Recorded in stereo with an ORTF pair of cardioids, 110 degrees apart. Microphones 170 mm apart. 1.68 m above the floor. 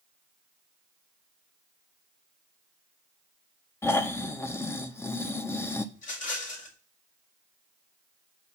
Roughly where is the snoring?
Ahead.